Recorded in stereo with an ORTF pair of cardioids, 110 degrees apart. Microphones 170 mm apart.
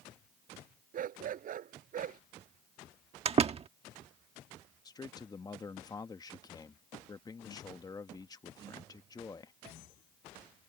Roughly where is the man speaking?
Ahead.